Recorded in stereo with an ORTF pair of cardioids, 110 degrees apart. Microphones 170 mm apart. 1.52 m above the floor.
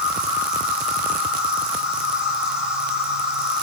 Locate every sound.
0.0 s an insect: 5° right, 3 m